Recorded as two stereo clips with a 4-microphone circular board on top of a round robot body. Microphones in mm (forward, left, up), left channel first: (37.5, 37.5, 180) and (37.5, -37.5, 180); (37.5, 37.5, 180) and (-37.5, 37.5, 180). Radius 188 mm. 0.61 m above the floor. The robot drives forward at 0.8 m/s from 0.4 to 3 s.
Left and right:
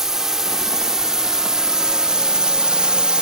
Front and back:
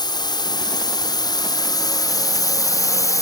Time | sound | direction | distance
0.0 | a drone | 5° right | ?